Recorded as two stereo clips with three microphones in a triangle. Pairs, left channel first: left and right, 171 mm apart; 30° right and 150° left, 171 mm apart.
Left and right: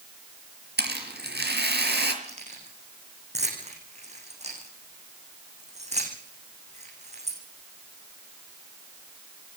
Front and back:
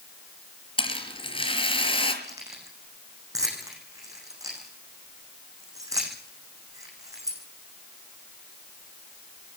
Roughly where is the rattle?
Right.